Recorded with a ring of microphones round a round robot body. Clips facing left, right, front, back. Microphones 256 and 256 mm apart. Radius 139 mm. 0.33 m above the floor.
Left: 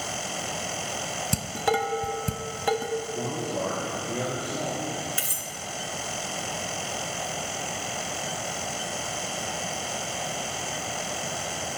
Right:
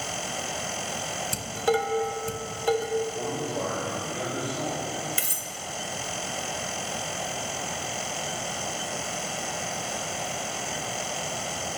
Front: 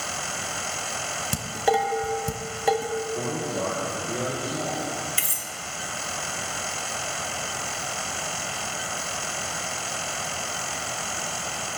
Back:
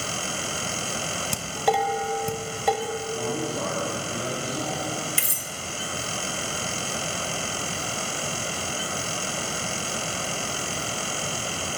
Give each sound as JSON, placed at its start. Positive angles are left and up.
{"t": 1.3, "sound": "dishes clattering", "azimuth_deg": 85, "distance_m": 1.2}
{"t": 3.1, "sound": "a man speaking", "azimuth_deg": 50, "distance_m": 7.5}
{"t": 5.2, "sound": "cutlery clinking", "azimuth_deg": -145, "distance_m": 1.0}